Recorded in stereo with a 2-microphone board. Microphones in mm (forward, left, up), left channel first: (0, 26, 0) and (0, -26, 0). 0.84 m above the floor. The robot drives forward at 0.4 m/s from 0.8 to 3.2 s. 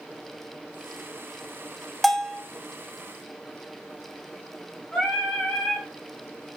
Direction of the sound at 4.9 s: 25° left (ahead or behind).